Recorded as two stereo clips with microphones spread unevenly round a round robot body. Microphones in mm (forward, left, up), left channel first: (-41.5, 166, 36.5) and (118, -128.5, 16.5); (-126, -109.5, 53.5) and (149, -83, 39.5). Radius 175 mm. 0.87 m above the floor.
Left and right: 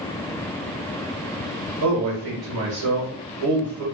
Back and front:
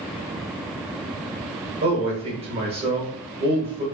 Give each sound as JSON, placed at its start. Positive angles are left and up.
{"t": 1.8, "sound": "a man speaking", "azimuth_deg": -35, "distance_m": 1.6}